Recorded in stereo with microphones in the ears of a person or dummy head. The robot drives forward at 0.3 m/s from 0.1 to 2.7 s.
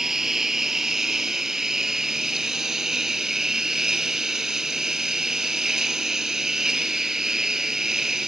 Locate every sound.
0.0 s a lawn mower: 5° right (ahead or behind)